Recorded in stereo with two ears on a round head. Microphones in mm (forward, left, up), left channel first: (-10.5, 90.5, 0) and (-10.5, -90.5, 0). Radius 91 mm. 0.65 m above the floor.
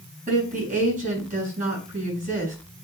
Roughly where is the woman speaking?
Right.